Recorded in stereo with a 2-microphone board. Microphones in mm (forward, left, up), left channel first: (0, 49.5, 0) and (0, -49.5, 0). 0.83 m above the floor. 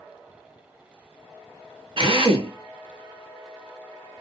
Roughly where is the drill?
Right.